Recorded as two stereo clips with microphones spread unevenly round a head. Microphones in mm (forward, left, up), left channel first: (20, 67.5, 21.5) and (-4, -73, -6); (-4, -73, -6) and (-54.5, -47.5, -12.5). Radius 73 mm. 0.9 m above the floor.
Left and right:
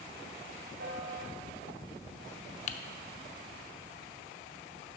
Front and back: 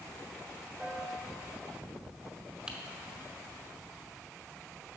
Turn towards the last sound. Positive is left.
turn(degrees=70)